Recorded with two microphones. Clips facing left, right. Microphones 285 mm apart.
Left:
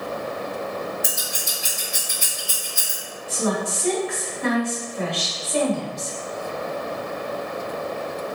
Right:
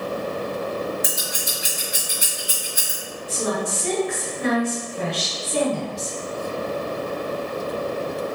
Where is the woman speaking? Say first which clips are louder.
Left 1 dB; 45° right (ahead or behind), 1.8 m.